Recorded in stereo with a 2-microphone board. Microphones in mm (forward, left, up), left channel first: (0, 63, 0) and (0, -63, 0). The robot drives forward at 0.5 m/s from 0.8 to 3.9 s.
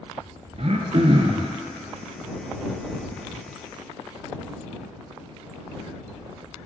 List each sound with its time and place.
0.6 s throat clearing: 60° right (ahead or behind), 0.6 m; by 1.5 s 45° right (ahead or behind), 0.7 m